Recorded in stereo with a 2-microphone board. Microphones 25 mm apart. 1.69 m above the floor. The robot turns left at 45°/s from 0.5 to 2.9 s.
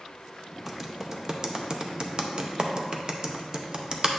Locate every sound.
0.7 s typing on a keyboard: 10° right (ahead or behind), 0.6 m; by 4.1 s 35° right (ahead or behind), 0.6 m